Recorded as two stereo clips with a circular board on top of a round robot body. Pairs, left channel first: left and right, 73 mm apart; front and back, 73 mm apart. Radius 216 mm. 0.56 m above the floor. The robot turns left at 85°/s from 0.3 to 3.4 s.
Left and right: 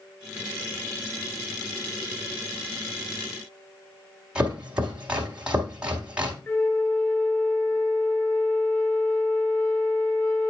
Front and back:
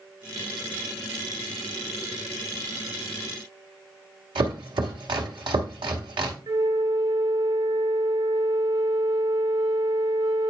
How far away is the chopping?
About 0.7 m.